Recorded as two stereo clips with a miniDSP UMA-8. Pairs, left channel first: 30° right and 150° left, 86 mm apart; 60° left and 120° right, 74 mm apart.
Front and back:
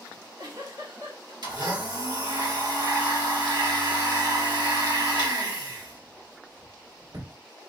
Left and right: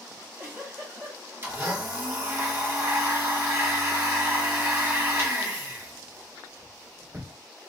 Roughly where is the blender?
Behind.